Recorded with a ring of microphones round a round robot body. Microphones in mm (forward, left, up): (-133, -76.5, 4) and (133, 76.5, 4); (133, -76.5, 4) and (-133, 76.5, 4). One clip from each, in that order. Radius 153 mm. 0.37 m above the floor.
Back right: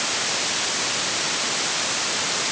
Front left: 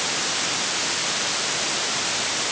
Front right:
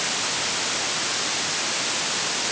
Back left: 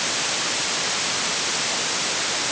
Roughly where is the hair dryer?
I don't hear a hair dryer.